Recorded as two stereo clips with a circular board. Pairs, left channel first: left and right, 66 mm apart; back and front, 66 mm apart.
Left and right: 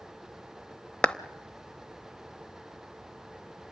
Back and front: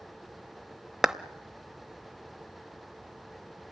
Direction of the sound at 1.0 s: 65° left.